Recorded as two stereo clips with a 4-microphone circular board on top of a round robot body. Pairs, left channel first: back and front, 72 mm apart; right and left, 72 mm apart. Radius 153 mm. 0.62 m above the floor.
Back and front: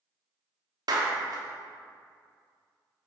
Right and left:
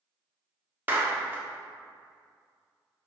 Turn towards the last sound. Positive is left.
turn(degrees=25)